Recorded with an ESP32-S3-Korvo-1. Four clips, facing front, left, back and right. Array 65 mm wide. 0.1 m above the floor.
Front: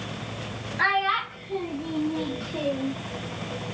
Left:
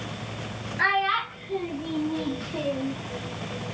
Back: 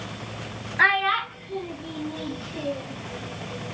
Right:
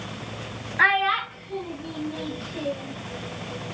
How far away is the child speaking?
About 0.8 m.